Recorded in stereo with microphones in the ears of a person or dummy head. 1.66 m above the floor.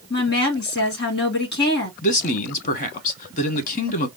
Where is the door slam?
I don't hear a door slam.